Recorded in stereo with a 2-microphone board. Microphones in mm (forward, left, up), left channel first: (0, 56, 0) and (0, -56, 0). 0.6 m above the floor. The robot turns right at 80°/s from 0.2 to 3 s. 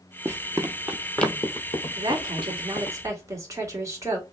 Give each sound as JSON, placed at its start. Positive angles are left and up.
{"t": 0.2, "sound": "running footsteps", "side_deg": -20, "distance_m": 0.6}
{"t": 2.0, "sound": "a woman speaking", "azimuth_deg": -120, "distance_m": 1.9}